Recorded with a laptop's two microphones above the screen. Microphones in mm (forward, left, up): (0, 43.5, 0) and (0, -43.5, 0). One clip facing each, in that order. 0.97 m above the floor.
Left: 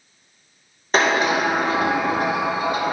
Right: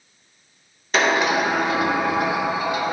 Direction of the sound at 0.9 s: 40° left (ahead or behind).